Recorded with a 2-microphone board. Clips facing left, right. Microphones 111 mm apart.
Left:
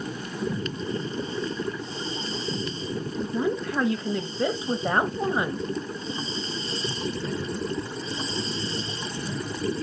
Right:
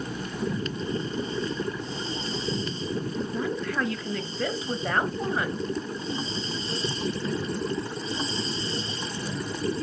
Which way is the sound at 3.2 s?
20° left (ahead or behind).